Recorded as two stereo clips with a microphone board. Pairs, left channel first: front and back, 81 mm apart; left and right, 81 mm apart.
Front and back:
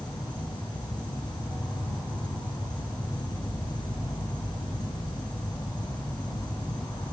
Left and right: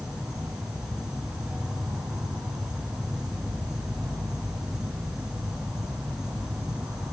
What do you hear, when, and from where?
0.0 s an insect: 5° right, 1.1 m